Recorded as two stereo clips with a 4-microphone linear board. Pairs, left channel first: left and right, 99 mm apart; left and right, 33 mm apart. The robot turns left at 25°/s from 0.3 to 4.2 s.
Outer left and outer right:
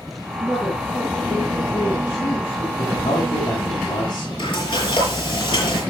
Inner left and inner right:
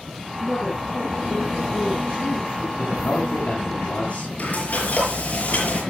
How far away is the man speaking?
About 6.5 m.